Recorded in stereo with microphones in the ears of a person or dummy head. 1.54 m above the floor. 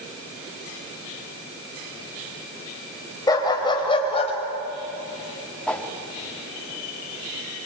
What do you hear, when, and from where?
3.3 s a dog barking: 15° left (ahead or behind), 3.5 m; by 4.3 s 30° left (ahead or behind), 3 m
5.7 s a whoosh: centre (ahead or behind), 1.4 m